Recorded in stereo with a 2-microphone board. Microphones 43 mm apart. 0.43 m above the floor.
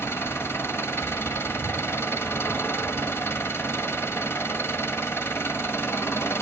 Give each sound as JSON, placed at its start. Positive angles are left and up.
{"t": 0.0, "sound": "an engine running", "side_deg": 70, "distance_m": 1.3}